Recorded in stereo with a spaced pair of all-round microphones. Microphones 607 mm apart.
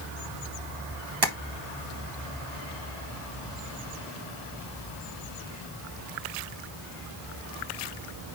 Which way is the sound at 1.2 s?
40° right (ahead or behind).